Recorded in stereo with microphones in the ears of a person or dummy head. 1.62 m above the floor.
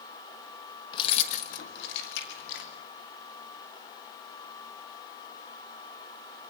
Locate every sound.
0.9 s keys jangling: 25° left (ahead or behind), 1.2 m; by 2.7 s 75° left (ahead or behind), 2.5 m